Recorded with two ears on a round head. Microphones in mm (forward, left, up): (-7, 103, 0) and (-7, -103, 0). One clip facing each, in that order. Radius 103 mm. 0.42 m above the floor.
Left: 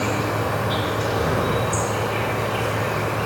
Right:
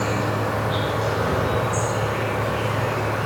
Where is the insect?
40° left (ahead or behind), 0.7 m.